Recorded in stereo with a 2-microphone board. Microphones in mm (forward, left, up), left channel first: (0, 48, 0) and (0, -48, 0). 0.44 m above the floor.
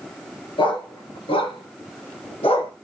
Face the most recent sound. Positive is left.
turn(degrees=85)